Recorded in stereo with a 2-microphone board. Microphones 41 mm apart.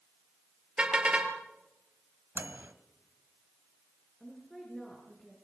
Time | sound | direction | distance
0.8 | a car horn | 25° right (ahead or behind) | 3.5 m
2.4 | a microwave | 55° right (ahead or behind) | 1.7 m
4.2 | a woman speaking | 5° left (ahead or behind) | 6.5 m